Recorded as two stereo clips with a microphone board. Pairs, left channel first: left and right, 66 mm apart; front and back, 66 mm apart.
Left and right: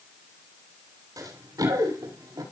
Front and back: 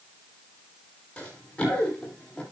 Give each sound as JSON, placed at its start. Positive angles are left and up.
{"t": 1.2, "sound": "running footsteps", "azimuth_deg": -75, "distance_m": 8.5}